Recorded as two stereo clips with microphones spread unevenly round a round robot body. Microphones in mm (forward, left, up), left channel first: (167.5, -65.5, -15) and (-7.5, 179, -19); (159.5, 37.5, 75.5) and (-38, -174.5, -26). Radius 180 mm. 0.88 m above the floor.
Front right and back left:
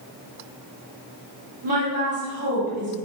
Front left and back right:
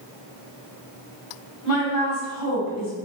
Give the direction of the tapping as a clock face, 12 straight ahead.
No tapping in this recording.